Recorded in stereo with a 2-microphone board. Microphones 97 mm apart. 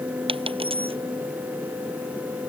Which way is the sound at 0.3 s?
75° right (ahead or behind).